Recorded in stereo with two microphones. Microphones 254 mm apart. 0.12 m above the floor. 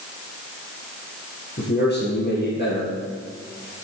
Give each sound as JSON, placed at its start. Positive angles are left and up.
{"t": 1.6, "sound": "a man speaking", "side_deg": 40, "distance_m": 2.5}